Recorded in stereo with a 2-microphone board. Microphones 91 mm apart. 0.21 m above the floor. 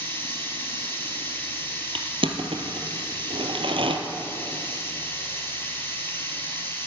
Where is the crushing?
70° right (ahead or behind), 1.2 m.